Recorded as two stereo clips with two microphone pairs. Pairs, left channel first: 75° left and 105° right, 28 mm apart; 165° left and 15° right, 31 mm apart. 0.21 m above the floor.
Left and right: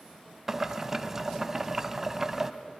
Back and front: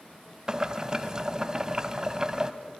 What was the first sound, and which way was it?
Boiling, 40° right.